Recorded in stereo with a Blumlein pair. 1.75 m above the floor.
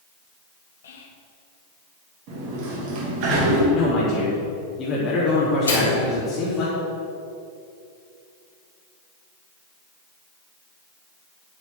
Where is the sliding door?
40° right, 3 m.